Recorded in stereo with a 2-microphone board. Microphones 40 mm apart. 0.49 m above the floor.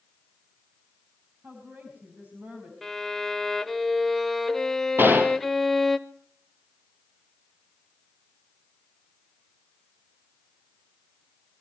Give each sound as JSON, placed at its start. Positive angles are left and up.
{"t": 1.4, "sound": "a woman speaking", "side_deg": -50, "distance_m": 5.0}
{"t": 2.8, "sound": "a violin", "side_deg": 5, "distance_m": 0.8}
{"t": 5.0, "sound": "a gunshot", "side_deg": -65, "distance_m": 2.0}